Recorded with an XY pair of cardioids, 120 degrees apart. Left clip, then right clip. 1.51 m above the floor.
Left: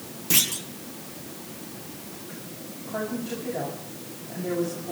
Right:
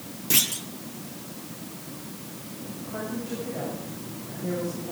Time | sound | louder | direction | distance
0.3 | a clunk | left 1 dB | straight ahead | 0.9 m
2.9 | a woman speaking | left 3 dB | 15° left | 7.5 m